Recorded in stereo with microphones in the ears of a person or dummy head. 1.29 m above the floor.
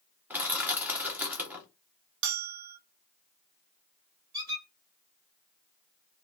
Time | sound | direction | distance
0.3 | crushing | 5° right (ahead or behind) | 0.5 m
2.2 | a bell | 65° right (ahead or behind) | 0.8 m
4.3 | a squeak | 50° right (ahead or behind) | 1.4 m